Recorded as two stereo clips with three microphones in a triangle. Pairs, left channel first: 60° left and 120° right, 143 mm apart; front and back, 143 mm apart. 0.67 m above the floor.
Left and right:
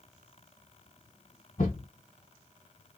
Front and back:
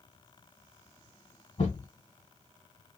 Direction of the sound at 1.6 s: 40° left.